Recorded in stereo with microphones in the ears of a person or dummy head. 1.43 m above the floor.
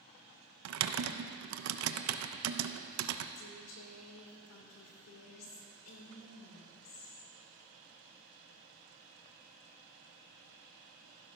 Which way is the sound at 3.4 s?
75° left (ahead or behind).